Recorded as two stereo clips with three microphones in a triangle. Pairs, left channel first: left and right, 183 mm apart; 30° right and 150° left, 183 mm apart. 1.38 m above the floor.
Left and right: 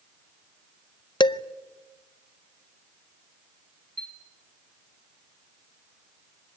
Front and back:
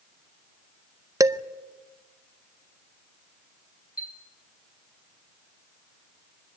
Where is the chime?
65° right, 2.5 m.